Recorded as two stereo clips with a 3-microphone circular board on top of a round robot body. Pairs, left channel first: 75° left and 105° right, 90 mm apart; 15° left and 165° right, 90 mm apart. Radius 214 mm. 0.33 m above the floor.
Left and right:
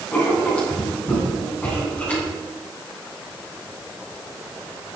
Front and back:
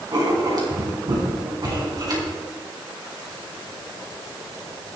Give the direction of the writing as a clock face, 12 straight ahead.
7 o'clock.